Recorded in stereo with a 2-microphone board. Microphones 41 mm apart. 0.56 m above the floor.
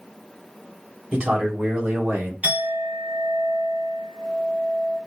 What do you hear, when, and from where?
1.1 s a man speaking: 25° right (ahead or behind), 2 m; by 2.3 s 55° right (ahead or behind), 3 m
2.4 s a clink: 35° right (ahead or behind), 3 m